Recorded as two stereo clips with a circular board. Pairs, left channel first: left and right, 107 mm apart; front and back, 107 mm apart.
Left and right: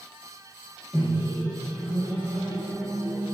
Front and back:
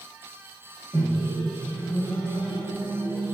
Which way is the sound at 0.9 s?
45° left.